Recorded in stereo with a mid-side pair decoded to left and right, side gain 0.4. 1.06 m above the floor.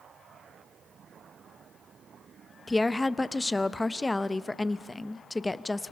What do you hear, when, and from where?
2.7 s a woman speaking: 25° left, 0.8 m